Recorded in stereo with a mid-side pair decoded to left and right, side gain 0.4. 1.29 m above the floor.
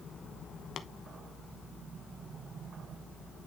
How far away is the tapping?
About 0.9 m.